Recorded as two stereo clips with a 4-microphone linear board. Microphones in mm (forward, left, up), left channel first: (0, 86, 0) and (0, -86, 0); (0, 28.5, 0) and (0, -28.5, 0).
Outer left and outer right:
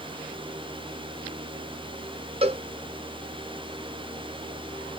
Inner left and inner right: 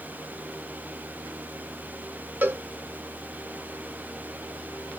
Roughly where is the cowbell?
Right.